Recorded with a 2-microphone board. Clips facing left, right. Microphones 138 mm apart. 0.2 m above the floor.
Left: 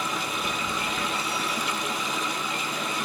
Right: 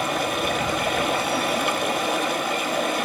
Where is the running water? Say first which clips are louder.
Right 7 dB; 65° right (ahead or behind), 0.8 m.